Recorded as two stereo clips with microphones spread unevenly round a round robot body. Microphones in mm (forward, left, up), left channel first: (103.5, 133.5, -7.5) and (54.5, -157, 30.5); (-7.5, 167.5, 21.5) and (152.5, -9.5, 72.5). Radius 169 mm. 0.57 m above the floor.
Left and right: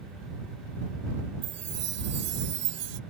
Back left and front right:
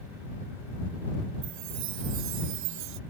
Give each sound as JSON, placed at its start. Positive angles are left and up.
{"t": 1.4, "sound": "a chime", "azimuth_deg": -60}